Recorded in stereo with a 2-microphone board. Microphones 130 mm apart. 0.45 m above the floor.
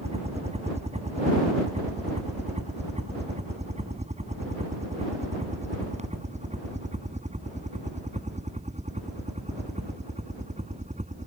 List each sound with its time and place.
0.0 s a helicopter: 55° right (ahead or behind); by 11.3 s 65° right (ahead or behind)